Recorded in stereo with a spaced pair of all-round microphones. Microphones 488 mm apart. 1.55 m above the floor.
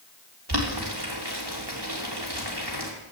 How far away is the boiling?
About 3 m.